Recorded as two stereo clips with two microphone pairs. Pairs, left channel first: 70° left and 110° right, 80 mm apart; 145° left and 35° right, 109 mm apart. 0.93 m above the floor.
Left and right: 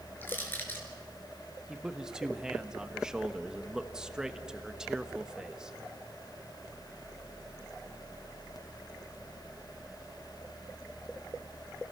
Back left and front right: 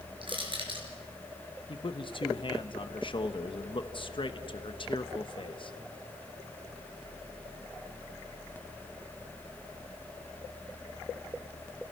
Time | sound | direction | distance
0.2 | crushing | 5° left | 4.5 m
1.7 | a man speaking | 170° left | 1.0 m